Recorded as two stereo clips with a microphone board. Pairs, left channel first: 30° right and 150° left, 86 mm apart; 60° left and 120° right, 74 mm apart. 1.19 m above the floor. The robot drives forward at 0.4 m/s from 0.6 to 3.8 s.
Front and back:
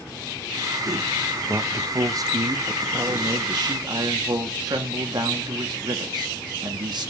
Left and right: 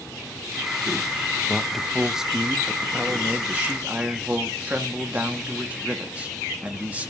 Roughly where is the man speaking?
Behind left.